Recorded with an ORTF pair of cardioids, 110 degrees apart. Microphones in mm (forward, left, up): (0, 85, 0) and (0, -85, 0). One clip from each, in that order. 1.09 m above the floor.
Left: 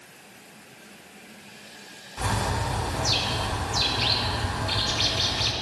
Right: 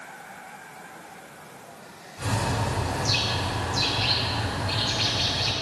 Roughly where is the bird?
Ahead left.